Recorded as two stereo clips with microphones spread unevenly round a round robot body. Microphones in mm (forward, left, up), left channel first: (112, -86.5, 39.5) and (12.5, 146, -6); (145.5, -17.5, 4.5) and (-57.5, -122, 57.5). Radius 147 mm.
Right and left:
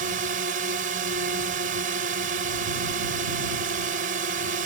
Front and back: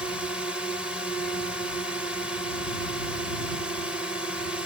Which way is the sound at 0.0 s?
105° left.